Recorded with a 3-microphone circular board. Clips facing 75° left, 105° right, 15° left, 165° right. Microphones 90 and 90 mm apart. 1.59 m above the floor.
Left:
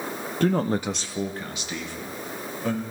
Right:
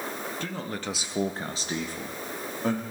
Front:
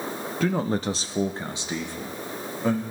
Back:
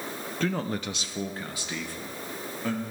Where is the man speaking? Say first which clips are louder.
Left 16 dB, front 5 dB; 100° left, 0.7 m; by 2.8 s 55° right, 3 m.